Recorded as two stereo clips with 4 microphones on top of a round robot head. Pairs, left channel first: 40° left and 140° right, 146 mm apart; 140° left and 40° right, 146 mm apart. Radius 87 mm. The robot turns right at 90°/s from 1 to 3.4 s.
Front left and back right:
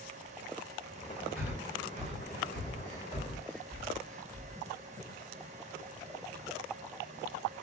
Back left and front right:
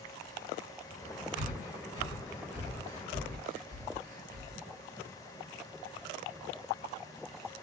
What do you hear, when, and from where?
1.4 s breathing: 135° left, 1.6 m; by 4.6 s 40° right, 1.6 m